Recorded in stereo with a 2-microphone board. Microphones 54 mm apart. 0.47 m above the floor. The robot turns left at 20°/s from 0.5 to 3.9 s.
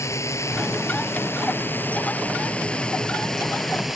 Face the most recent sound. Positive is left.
turn(degrees=-5)